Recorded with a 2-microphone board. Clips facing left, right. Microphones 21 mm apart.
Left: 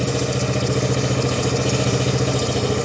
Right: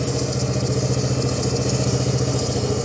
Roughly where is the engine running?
Left.